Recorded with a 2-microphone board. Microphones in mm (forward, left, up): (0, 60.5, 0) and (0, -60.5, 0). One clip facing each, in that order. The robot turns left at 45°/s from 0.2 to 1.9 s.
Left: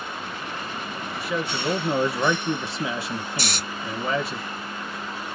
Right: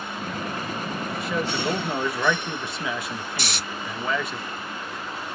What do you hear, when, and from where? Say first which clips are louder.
1.2 s a man speaking: even; straight behind, 1.5 m; by 4.4 s 145° left, 1.5 m
3.4 s snoring: left 2 dB; 40° left (ahead or behind), 1.4 m